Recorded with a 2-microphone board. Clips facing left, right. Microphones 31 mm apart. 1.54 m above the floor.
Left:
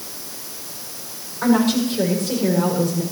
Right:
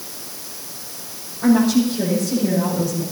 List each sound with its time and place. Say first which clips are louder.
1.4 s a woman speaking: right 2 dB; 65° left (ahead or behind), 7 m; by 3.0 s 55° left (ahead or behind), 6 m